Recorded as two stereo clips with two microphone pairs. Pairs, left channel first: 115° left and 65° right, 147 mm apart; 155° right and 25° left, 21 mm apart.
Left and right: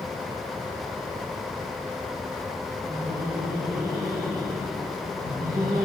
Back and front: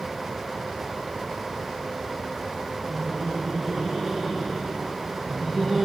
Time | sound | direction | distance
2.9 | laughter | 60° right | 8 m